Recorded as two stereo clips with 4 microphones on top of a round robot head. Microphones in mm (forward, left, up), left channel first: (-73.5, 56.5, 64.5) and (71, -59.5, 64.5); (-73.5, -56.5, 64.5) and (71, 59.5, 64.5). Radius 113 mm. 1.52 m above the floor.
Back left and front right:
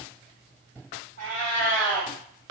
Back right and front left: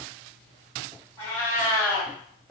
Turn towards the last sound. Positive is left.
turn(degrees=100)